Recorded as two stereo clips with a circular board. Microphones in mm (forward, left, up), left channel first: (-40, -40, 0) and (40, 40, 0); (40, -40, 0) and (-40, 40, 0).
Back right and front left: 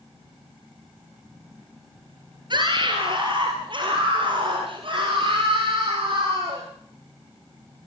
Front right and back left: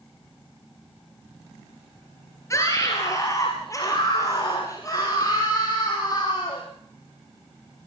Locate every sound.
2.5 s a scream: 15° left, 3.5 m; by 6.6 s 10° left, 7 m